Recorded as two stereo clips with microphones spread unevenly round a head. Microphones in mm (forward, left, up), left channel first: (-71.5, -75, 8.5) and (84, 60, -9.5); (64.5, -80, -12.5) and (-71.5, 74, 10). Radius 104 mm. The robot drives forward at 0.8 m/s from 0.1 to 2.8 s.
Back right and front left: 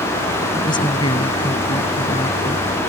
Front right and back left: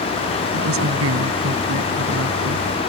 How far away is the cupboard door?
No cupboard door in this recording.